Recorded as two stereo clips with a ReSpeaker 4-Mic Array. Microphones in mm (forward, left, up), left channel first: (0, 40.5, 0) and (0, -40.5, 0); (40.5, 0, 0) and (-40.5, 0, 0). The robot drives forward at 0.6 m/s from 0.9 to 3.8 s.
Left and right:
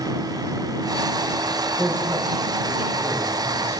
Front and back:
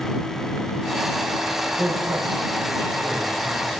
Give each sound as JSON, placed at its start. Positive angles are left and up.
{"t": 1.8, "sound": "a man speaking", "azimuth_deg": -145, "distance_m": 8.0}